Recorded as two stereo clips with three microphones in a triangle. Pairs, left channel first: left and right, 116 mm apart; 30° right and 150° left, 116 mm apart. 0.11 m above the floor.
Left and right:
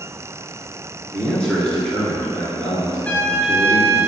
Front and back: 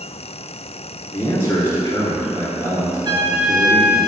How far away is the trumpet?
About 0.7 m.